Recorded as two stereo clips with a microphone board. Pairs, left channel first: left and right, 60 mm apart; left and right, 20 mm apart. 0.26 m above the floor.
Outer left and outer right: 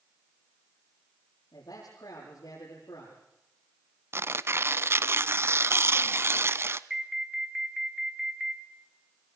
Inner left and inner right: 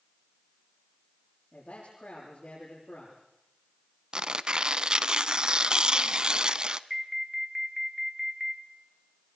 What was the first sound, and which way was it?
A man speaking, 85° left.